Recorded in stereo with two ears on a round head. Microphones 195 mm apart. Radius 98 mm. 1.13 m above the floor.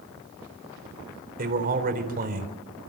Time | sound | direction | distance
1.4 | a man speaking | 40° right (ahead or behind) | 4 m